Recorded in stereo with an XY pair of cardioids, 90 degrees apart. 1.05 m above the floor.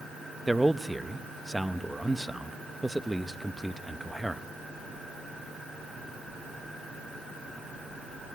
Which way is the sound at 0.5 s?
5° right.